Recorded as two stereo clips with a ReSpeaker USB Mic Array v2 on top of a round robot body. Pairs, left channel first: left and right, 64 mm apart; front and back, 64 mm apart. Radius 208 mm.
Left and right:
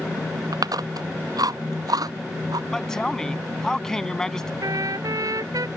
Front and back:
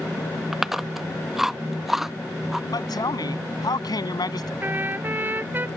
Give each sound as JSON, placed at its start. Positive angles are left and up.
{"t": 0.5, "sound": "chewing", "azimuth_deg": -95}
{"t": 2.7, "sound": "a man speaking", "azimuth_deg": 10}
{"t": 4.6, "sound": "a trumpet", "azimuth_deg": -120}